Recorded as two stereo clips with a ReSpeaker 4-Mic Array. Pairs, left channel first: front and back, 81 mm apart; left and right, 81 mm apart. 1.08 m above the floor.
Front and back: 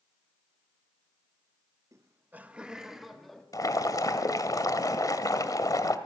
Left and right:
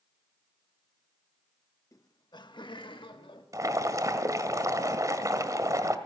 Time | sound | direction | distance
1.9 | laughter | 135° left | 1.2 m
3.5 | boiling | 40° right | 1.8 m